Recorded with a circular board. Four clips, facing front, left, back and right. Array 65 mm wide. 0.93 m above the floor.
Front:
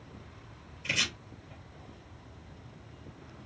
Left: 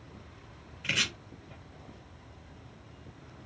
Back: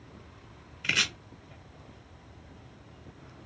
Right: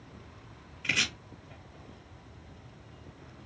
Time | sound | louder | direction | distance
0.8 | chopping | right 1 dB, back 3 dB | 175° left | 1.5 m